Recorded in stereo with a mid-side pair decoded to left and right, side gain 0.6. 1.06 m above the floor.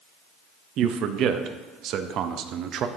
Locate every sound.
0.8 s a man speaking: 60° right, 0.7 m